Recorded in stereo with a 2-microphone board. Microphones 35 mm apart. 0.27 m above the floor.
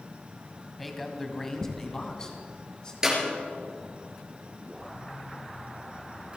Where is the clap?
15° right (ahead or behind), 4 m.